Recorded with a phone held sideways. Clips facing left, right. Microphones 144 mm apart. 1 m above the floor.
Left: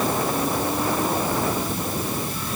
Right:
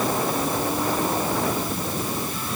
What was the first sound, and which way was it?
Only background noise.